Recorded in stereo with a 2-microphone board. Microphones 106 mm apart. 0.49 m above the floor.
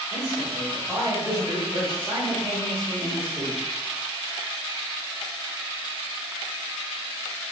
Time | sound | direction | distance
0.1 | a man speaking | 15° right (ahead or behind) | 1.4 m